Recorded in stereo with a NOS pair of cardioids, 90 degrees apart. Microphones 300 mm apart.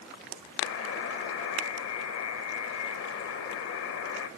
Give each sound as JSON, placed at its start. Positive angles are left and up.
{"t": 0.6, "sound": "a buzzer", "azimuth_deg": 60, "distance_m": 2.0}